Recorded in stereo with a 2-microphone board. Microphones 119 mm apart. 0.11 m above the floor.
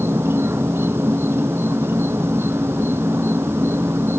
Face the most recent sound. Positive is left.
turn(degrees=-20)  # may be behind; listen again after turning